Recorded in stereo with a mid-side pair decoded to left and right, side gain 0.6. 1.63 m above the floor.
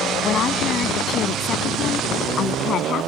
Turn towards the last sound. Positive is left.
turn(degrees=50)